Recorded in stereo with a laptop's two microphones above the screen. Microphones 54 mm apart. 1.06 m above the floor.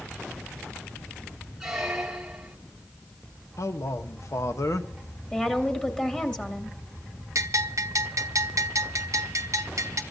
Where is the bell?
75° right (ahead or behind), 0.8 m.